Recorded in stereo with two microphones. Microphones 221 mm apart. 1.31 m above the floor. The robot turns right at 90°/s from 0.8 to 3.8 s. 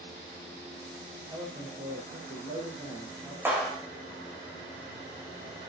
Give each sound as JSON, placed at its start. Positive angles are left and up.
{"t": 1.2, "sound": "a man speaking", "azimuth_deg": -175, "distance_m": 5.0}
{"t": 3.5, "sound": "a clap", "azimuth_deg": -10, "distance_m": 5.5}